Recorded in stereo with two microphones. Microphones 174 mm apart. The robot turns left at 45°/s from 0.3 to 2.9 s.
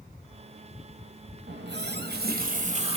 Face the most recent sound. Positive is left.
turn(degrees=-140)